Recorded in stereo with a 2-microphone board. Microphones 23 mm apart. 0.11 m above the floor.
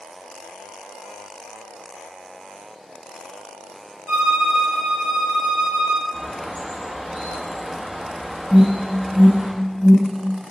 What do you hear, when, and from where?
4.1 s a violin: 50° right (ahead or behind), 1.2 m
6.1 s a bird: 70° right (ahead or behind), 2.5 m
8.5 s an alarm: 15° right (ahead or behind), 1.4 m